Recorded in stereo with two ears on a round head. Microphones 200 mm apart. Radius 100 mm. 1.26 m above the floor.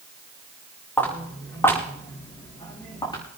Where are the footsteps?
10° left (ahead or behind), 6 m; by 3.2 s 20° left (ahead or behind), 6 m.